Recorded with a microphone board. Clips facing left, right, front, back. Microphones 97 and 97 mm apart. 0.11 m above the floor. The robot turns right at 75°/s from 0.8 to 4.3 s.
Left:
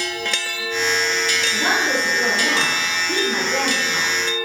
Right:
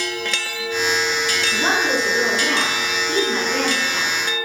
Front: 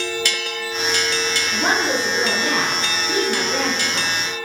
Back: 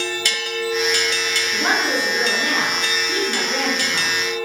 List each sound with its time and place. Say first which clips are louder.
1.5 s a woman speaking: right 1 dB, even; 60° right, 1.1 m; by 4.5 s 150° left, 1.1 m